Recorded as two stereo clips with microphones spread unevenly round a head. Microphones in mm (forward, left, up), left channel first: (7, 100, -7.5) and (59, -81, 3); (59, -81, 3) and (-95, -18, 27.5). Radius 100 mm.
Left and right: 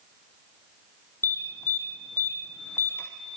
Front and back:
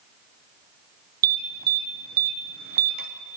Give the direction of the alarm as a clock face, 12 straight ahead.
6 o'clock.